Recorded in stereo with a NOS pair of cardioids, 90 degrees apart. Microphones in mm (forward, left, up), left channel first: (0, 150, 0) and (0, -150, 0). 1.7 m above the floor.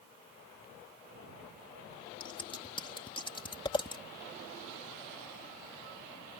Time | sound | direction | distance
2.2 | scissors | 15° left | ?